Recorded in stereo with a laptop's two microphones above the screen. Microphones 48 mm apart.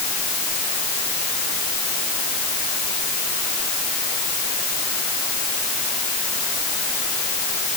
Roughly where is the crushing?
No crushing in this recording.